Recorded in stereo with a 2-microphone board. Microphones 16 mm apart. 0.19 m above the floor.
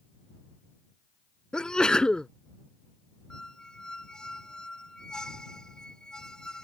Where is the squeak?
45° left (ahead or behind).